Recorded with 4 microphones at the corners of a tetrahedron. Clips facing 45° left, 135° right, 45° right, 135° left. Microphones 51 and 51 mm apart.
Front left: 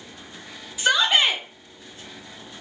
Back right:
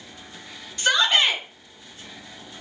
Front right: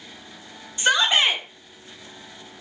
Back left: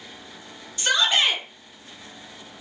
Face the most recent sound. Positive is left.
turn(degrees=-30)